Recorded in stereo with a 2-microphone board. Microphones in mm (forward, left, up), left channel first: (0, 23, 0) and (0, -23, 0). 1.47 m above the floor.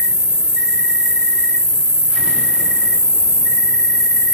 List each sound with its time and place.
0.0 s an insect: 15° right (ahead or behind), 0.8 m